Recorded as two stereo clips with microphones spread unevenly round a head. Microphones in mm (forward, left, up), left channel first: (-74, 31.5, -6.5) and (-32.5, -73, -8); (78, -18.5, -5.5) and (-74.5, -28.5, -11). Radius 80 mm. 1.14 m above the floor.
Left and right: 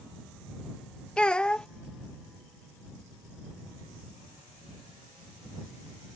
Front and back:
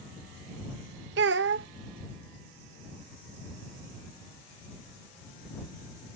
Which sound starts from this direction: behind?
A child speaking, at 1.2 s.